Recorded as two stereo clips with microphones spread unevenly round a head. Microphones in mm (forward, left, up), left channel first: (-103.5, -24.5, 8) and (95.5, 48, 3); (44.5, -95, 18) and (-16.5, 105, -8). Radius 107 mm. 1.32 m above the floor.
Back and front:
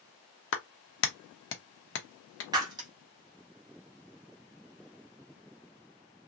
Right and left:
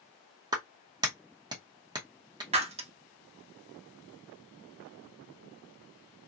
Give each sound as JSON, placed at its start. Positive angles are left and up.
{"t": 0.5, "sound": "a clap", "azimuth_deg": 180, "distance_m": 0.7}
{"t": 2.5, "sound": "breaking glass", "azimuth_deg": 70, "distance_m": 0.7}